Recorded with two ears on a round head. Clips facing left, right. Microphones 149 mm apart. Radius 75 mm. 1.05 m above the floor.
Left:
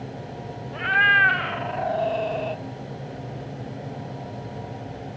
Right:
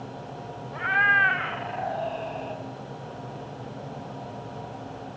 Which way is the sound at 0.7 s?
30° left (ahead or behind).